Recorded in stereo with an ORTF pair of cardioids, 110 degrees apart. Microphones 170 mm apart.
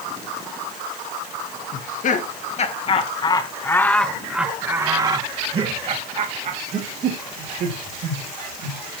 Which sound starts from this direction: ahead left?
Laughter, at 1.7 s.